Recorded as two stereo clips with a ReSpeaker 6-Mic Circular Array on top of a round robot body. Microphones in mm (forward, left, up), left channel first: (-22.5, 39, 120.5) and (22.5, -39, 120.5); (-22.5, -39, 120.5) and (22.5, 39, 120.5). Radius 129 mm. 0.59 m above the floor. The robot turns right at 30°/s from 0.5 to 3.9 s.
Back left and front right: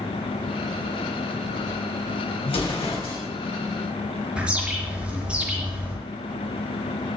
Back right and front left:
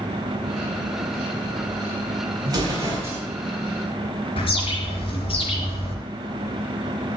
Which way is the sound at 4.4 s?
140° right.